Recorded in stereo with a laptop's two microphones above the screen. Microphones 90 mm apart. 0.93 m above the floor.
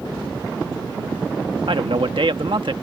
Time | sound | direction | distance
1.7 | a man speaking | 65° right (ahead or behind) | ?